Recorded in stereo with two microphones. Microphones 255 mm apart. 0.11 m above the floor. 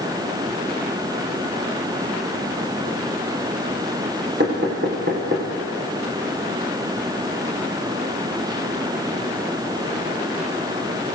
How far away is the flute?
No flute in this recording.